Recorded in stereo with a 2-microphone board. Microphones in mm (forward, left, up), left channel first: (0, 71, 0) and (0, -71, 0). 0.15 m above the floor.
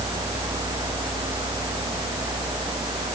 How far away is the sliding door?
No sliding door in this recording.